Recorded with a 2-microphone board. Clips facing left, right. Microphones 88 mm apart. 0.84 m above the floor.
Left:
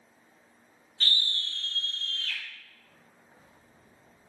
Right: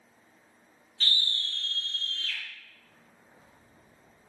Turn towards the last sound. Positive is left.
turn(degrees=55)  # may be behind; listen again after turning